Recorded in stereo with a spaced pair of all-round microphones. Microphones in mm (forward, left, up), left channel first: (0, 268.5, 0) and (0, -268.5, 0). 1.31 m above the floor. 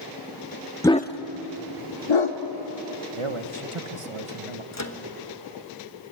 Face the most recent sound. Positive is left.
turn(degrees=30)  # may be behind; listen again after turning